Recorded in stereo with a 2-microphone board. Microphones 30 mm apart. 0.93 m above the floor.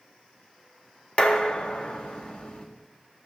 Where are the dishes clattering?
35° left (ahead or behind), 1.1 m.